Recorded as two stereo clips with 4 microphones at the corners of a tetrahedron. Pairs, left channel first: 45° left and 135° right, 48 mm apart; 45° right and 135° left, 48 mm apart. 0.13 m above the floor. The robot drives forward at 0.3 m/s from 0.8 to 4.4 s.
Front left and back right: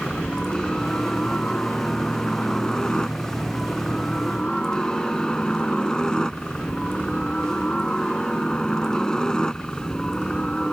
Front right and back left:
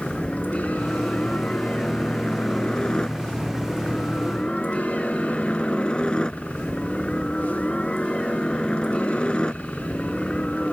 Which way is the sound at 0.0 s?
5° right.